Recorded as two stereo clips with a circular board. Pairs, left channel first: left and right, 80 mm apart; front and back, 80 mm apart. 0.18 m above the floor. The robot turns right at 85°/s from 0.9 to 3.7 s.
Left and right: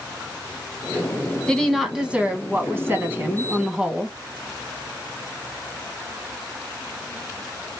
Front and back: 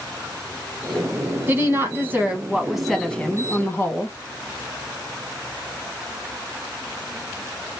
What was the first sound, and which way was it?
A woman speaking, 155° left.